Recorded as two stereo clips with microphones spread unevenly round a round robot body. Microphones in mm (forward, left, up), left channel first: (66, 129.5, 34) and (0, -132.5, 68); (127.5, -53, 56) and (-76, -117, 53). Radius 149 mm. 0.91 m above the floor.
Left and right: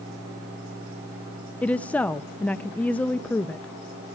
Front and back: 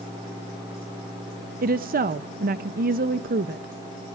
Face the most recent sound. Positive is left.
turn(degrees=155)